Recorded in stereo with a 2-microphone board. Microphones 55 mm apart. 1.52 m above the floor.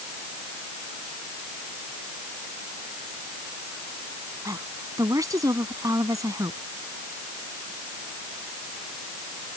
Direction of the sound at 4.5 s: 90° right.